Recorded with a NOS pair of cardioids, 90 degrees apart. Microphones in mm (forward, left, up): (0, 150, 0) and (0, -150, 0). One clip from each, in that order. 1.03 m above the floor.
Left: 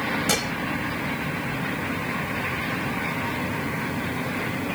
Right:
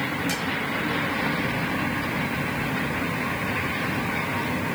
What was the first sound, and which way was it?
Dishes clattering, 55° left.